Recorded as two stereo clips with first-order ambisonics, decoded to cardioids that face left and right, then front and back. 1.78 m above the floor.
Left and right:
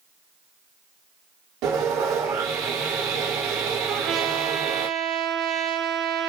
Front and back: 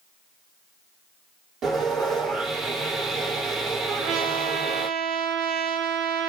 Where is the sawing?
125° right, 5 m.